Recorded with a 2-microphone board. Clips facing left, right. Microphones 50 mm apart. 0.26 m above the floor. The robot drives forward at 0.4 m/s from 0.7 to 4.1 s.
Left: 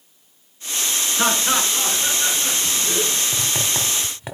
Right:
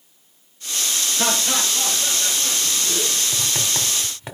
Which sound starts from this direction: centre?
Writing, at 3.3 s.